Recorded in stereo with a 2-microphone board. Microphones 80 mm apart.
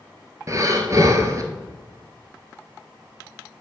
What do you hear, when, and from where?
0.5 s breathing: 45° right (ahead or behind), 0.7 m